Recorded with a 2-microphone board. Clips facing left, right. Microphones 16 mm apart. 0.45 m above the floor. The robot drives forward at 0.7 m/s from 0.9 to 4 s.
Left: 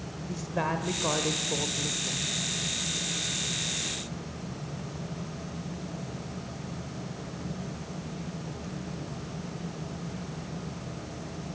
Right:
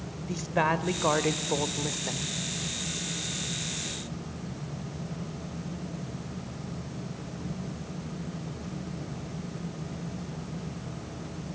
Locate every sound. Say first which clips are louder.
0.3 s a woman speaking: right 4 dB; 30° right (ahead or behind), 1.3 m; by 2.4 s 45° right (ahead or behind), 1.0 m